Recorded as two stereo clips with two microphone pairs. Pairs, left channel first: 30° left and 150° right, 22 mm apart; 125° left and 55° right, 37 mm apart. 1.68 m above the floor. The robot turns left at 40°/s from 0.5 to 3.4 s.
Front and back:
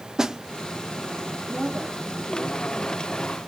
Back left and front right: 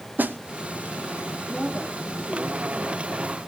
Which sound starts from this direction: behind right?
A woman speaking, at 1.5 s.